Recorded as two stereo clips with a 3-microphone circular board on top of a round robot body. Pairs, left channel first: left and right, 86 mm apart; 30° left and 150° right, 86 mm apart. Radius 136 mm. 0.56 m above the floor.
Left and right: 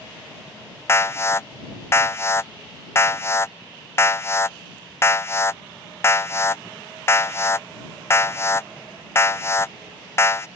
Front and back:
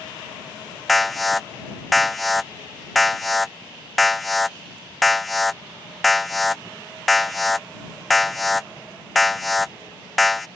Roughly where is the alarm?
Behind left.